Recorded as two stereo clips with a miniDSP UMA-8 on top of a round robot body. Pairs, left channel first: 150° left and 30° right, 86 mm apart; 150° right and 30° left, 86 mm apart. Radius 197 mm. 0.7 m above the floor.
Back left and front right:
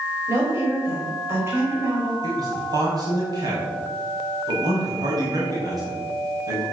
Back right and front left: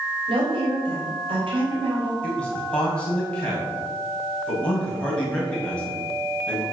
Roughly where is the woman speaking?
Ahead left.